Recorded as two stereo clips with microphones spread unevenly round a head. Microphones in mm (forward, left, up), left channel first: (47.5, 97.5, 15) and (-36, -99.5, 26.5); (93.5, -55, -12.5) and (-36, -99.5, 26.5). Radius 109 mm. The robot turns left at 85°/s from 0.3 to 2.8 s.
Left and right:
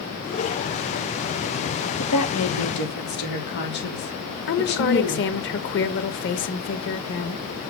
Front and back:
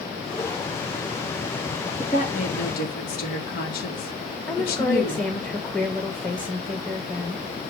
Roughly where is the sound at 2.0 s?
Left.